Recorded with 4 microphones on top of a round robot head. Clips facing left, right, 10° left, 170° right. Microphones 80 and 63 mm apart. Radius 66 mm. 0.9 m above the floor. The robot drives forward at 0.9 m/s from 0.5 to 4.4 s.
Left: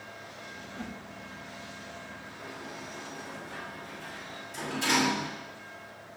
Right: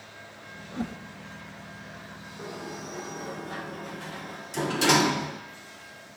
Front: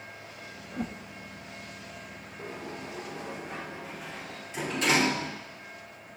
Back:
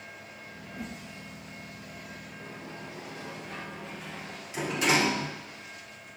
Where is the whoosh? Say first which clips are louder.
Right 8 dB, front 5 dB; 35° right, 1.2 m; by 1.0 s 45° right, 0.9 m.